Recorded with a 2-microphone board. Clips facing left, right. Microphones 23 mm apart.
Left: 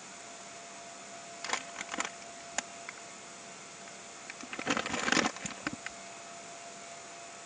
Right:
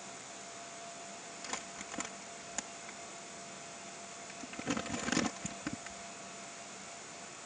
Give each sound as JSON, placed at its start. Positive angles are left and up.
{"t": 1.4, "sound": "crumpling", "side_deg": 30}